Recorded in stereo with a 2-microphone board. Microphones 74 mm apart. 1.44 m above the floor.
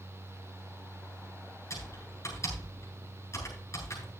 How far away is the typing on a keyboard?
About 8.5 m.